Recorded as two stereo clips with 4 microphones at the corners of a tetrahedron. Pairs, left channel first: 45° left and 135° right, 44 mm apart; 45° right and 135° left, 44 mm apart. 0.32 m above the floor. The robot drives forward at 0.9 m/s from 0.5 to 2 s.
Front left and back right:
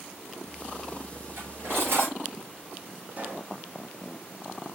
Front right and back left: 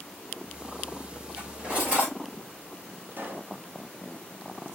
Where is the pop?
175° left, 0.9 m.